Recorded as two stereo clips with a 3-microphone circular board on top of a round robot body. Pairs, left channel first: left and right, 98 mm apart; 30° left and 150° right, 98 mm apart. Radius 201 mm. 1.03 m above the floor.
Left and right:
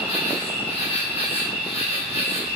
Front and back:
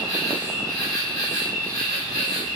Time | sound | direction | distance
0.0 | an insect | 90° left | 1.2 m